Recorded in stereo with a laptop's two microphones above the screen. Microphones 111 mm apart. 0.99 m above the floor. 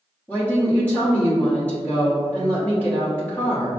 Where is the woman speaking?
15° left (ahead or behind), 1.4 m.